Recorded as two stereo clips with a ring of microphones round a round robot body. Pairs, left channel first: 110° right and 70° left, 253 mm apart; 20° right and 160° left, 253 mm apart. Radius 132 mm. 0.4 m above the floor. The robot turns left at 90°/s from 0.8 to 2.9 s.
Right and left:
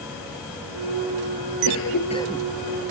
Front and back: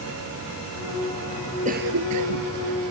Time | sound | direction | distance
1.6 | a cough | 140° right | ?